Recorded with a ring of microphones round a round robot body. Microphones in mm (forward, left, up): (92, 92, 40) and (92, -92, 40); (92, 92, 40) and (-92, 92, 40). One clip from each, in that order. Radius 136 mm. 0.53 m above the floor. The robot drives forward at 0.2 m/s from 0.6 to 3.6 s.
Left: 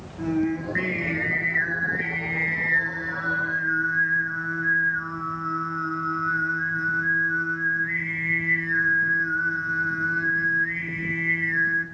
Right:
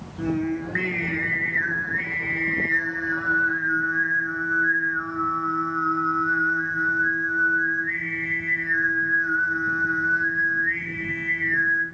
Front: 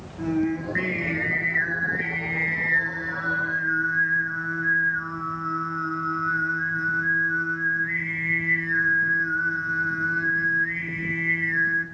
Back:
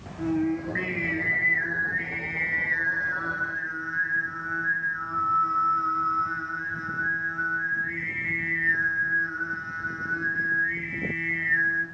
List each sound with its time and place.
0.2 s singing: 50° right, 1.2 m; by 11.8 s 110° right, 1.2 m